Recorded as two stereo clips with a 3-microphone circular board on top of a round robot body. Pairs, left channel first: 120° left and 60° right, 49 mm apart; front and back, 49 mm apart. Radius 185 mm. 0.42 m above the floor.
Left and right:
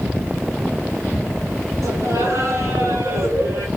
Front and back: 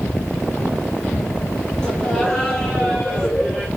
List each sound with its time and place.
1.8 s laughter: 75° right, 4.5 m; by 3.7 s 70° right, 2 m